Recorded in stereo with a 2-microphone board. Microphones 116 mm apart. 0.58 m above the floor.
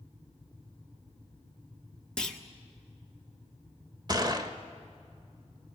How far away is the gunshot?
About 1.3 m.